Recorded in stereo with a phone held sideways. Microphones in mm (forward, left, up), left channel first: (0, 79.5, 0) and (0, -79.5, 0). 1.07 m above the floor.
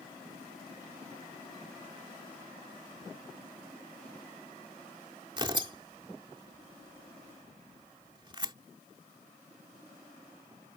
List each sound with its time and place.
5.4 s tearing paper: 30° right (ahead or behind)